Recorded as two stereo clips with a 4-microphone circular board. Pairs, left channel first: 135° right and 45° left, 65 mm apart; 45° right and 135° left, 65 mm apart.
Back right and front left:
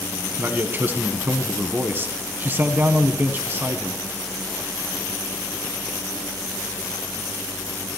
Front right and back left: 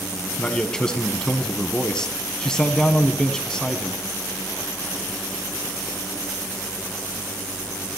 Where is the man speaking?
25° left, 1.4 m.